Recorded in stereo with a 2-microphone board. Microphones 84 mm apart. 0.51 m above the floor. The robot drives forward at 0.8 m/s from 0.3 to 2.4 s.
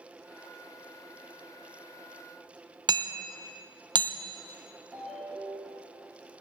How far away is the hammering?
About 0.6 m.